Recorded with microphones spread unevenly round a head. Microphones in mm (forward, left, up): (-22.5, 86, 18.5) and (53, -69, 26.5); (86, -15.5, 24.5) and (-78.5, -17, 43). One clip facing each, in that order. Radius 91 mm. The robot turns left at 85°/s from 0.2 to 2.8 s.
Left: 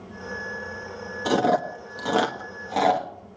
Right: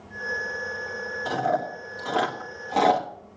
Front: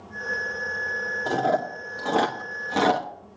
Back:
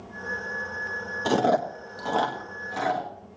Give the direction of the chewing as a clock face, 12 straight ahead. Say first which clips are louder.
Left 5 dB, back 2 dB; 7 o'clock.